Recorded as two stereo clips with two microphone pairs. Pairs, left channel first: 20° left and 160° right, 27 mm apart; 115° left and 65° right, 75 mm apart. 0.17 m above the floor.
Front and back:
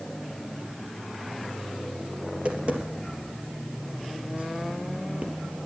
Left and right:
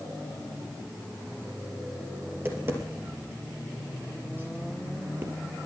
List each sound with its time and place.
2.3 s tapping: 125° right, 3 m